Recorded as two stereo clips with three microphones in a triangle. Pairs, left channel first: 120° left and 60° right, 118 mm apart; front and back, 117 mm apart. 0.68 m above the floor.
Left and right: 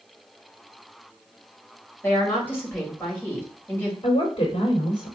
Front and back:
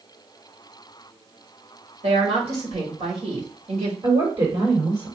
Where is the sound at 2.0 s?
170° right, 2.5 m.